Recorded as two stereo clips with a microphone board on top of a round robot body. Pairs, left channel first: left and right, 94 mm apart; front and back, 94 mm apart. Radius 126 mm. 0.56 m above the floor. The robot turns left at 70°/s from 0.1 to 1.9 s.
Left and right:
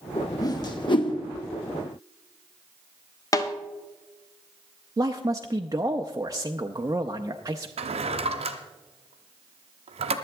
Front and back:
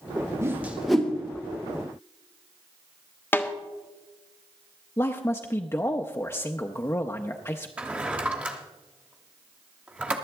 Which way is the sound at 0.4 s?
125° left.